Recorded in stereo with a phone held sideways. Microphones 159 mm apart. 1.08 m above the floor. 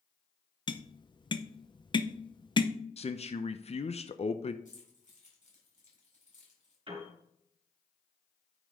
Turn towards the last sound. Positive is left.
turn(degrees=-40)  # may be behind; listen again after turning